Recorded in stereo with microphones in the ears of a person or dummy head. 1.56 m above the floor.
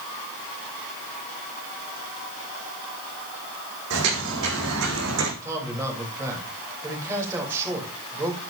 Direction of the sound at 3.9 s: 70° right (ahead or behind).